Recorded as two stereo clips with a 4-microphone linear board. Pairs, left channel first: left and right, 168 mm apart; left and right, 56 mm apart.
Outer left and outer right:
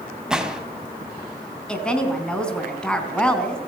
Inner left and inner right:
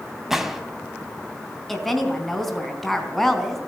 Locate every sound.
0.3 s a gunshot: 5° right (ahead or behind), 2.5 m
1.7 s a woman speaking: 5° left (ahead or behind), 4 m